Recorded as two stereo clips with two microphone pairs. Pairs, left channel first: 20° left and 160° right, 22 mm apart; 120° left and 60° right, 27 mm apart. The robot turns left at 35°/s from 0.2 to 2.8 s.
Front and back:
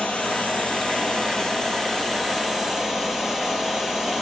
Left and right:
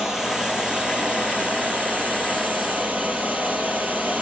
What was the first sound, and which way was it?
Running water, 15° left.